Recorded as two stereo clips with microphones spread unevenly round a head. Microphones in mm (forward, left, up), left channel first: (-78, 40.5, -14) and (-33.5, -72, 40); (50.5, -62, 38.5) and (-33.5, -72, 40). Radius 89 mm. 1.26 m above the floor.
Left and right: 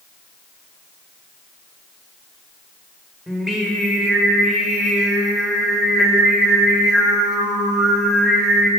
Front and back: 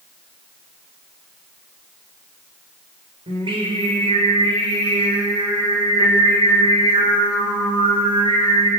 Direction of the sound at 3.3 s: 155° right.